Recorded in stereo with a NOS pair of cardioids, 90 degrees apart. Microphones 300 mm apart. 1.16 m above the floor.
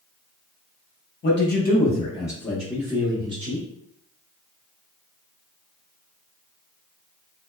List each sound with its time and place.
1.2 s a man speaking: 40° left, 1.1 m; by 3.7 s 25° right, 1.3 m